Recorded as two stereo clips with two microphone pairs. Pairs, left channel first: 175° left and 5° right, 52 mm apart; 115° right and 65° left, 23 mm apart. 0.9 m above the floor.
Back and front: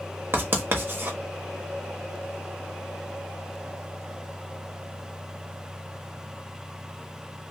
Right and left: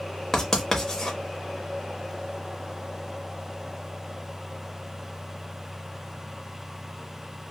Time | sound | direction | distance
0.3 | writing | 50° right | 0.7 m